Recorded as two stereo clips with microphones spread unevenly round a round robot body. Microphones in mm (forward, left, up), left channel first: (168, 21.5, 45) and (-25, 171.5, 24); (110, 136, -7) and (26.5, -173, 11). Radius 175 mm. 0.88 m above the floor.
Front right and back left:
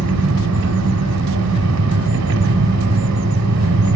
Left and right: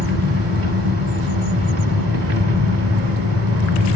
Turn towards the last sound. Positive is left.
turn(degrees=-160)